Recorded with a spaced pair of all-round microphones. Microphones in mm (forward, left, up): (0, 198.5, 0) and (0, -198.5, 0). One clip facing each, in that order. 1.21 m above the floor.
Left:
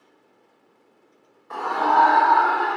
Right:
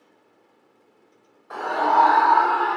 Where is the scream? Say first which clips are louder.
Even; 5° left (ahead or behind), 1.0 m; by 2.8 s 40° left (ahead or behind), 1.6 m.